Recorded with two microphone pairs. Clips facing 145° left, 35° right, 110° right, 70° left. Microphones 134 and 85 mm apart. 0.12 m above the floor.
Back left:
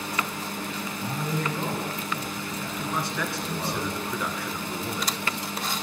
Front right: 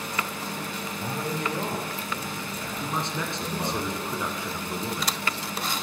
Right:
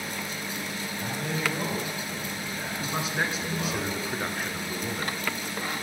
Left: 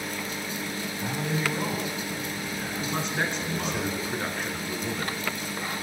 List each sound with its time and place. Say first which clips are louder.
1.0 s a man speaking: even, left 1 dB; 30° right, 4.5 m
2.8 s a man speaking: back left 1 dB, even; 25° right, 1.6 m